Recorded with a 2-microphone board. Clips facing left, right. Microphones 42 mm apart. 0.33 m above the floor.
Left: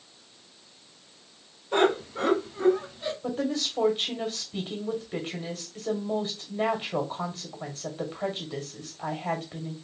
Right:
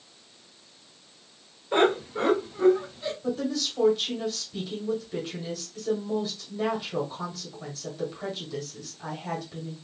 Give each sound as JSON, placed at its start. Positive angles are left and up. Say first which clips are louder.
{"t": 1.7, "sound": "laughter", "louder": "right 1 dB", "side_deg": -35, "distance_m": 1.8}
{"t": 3.2, "sound": "a woman speaking", "louder": "even", "side_deg": 35, "distance_m": 1.5}